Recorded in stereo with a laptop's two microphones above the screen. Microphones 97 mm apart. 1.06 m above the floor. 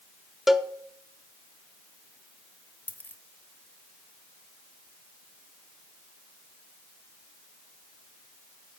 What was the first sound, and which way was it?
A cowbell, centre (ahead or behind).